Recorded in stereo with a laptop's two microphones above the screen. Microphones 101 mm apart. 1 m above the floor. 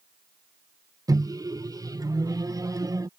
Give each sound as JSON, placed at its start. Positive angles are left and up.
{"t": 1.1, "sound": "a microwave", "side_deg": -40}